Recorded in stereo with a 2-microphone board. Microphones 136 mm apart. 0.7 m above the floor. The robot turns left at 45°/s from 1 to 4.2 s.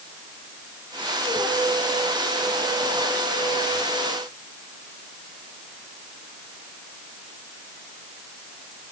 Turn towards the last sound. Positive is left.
No sound to turn to.